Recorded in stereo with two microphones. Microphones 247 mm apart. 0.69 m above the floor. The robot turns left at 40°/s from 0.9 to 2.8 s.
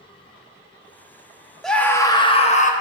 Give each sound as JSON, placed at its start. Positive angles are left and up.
{"t": 1.6, "sound": "a scream", "azimuth_deg": 180, "distance_m": 0.8}